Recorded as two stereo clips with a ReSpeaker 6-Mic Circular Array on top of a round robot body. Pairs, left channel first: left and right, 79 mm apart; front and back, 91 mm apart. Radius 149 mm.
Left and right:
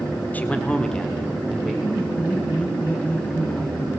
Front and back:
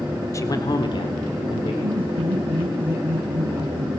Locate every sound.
0.3 s a man speaking: 30° left, 1.8 m; by 1.7 s straight ahead, 3.5 m
1.8 s laughter: 160° left, 5 m